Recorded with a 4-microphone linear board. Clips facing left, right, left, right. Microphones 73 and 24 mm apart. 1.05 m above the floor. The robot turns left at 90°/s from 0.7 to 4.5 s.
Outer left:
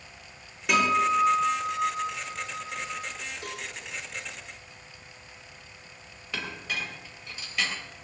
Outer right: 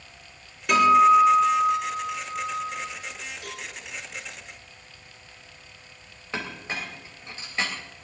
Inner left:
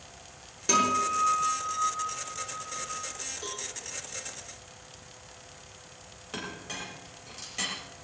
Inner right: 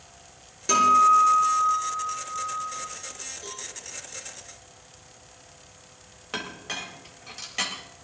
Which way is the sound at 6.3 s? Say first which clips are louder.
Outer right 2 dB, inner right 5 dB; 30° right (ahead or behind).